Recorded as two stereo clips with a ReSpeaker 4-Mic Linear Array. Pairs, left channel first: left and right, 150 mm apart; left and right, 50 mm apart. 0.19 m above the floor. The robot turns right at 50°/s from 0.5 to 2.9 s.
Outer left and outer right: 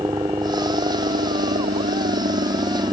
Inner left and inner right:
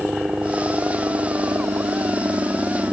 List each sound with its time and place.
0.0 s a helicopter: 155° right; by 2.9 s 35° right